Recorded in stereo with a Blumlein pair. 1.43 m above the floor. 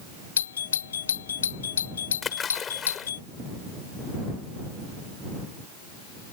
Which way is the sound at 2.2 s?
20° left.